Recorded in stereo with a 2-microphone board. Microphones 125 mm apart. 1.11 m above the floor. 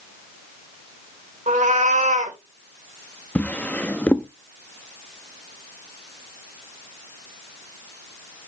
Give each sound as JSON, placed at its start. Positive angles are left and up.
{"t": 1.5, "sound": "a cat meowing", "side_deg": -85, "distance_m": 2.5}
{"t": 3.4, "sound": "a drawer", "side_deg": 10, "distance_m": 0.7}